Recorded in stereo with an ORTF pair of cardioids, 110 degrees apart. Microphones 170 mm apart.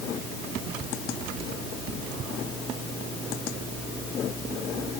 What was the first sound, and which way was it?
Only background noise.